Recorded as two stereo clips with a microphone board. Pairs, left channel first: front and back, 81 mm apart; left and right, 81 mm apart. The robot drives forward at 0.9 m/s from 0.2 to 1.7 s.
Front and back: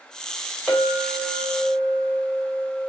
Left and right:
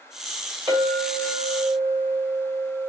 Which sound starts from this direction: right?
A clink, at 0.7 s.